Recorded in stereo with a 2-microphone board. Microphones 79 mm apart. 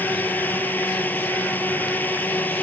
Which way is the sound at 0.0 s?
25° left (ahead or behind).